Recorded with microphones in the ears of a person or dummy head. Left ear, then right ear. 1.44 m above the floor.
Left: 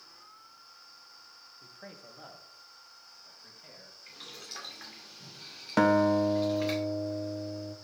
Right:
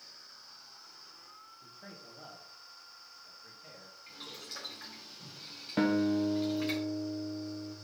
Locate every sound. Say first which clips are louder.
1.6 s a man speaking: left 4 dB; 60° left (ahead or behind), 1.4 m; by 4.0 s 35° left (ahead or behind), 2.5 m
4.1 s boiling: even; 10° left (ahead or behind), 2.0 m
5.8 s a guitar: left 6 dB; 35° left (ahead or behind), 0.7 m